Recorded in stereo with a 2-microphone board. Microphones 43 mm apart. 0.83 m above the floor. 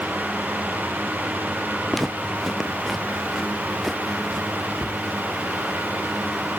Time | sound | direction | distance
1.9 | footsteps | 5° left (ahead or behind) | ?
4.8 | a cupboard door | 30° right (ahead or behind) | ?